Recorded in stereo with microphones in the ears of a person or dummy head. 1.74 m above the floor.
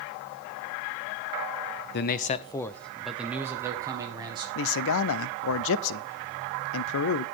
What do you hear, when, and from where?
1.9 s a man speaking: 55° left (ahead or behind), 0.6 m; by 4.5 s 25° right (ahead or behind), 1.9 m
4.5 s a man speaking: 65° left (ahead or behind), 0.7 m